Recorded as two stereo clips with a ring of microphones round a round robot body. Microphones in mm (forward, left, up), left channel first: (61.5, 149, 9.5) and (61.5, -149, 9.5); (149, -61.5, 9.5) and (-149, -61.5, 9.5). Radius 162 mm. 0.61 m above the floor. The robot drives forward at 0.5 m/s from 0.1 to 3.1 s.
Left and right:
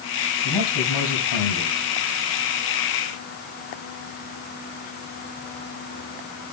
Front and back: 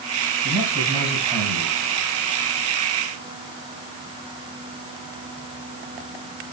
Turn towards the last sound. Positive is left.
turn(degrees=110)